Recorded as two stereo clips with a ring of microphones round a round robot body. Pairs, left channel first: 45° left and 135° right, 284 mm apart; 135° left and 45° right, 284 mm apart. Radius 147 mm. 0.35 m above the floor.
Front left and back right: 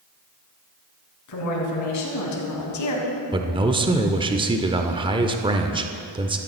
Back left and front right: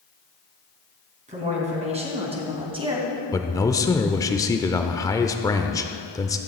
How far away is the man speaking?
About 0.8 m.